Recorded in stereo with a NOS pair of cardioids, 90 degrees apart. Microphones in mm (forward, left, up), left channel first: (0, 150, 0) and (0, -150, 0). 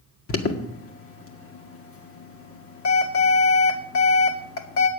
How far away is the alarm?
About 1.8 m.